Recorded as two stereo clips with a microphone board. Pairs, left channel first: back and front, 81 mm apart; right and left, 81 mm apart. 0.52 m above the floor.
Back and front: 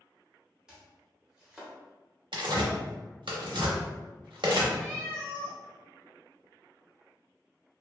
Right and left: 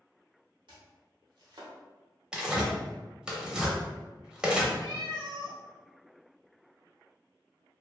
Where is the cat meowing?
95° left, 1.0 m.